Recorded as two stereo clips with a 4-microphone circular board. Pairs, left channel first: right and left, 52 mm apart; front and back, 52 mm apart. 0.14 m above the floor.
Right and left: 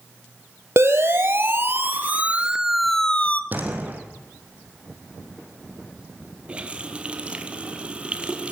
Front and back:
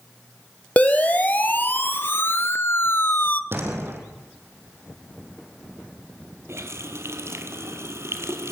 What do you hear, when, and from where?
0.8 s a siren: 60° left, 3.5 m; by 3.4 s 40° right, 1.5 m
3.5 s a door slam: 145° left, 5 m
6.5 s a running tap: 155° left, 2.5 m